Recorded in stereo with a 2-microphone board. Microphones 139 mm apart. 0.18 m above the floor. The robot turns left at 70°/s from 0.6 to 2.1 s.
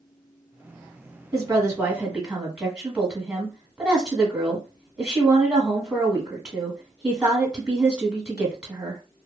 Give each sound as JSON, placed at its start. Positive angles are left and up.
{"t": 1.3, "sound": "a woman speaking", "azimuth_deg": -115, "distance_m": 1.2}